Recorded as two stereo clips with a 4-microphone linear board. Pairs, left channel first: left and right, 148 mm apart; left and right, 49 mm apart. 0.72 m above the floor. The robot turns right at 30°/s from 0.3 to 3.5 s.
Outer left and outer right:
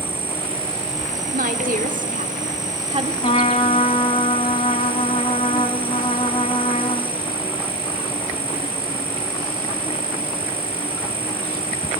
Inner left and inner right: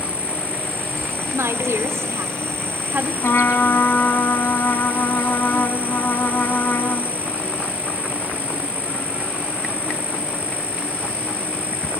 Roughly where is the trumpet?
Left.